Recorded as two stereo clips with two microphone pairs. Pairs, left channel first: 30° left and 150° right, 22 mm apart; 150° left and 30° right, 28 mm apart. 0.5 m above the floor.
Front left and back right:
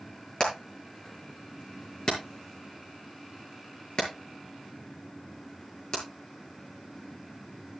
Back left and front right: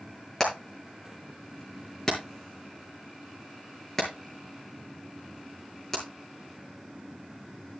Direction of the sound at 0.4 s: 70° left.